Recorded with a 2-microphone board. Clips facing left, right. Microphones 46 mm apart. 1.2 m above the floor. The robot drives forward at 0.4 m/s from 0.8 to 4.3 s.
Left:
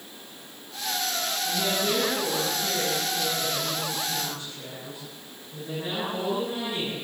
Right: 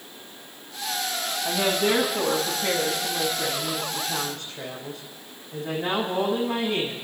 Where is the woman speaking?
80° right, 6.5 m; by 7.0 s 70° right (ahead or behind), 6.5 m.